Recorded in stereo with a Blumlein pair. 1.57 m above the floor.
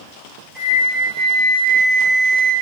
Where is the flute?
10° right, 5 m.